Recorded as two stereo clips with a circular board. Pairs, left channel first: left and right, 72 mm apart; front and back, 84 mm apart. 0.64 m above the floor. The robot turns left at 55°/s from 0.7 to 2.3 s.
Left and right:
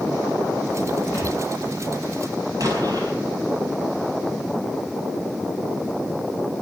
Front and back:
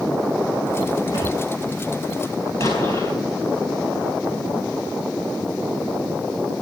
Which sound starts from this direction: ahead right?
An explosion, at 2.6 s.